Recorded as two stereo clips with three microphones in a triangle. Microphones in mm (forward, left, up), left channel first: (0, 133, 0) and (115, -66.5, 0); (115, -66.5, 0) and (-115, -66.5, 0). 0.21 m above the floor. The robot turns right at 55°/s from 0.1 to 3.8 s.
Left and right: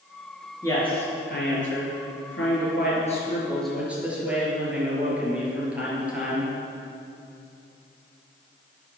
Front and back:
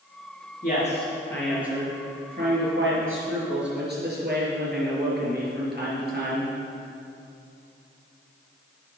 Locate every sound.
0.6 s a man speaking: 40° left, 4 m; by 6.5 s 145° right, 4 m